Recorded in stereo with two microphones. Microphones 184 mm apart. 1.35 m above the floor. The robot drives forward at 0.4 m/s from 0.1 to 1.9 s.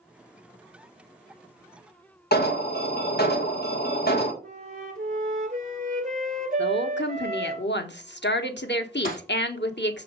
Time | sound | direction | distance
2.3 | an alarm | 60° left (ahead or behind) | 1.8 m
4.4 | a flute | 45° right (ahead or behind) | 1.9 m
6.6 | a woman speaking | 70° left (ahead or behind) | 1.2 m
9.1 | breaking glass | 45° left (ahead or behind) | 4 m